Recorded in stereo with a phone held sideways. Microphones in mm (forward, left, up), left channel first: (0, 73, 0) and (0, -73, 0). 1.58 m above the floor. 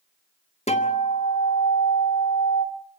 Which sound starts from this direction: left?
A guitar, at 0.7 s.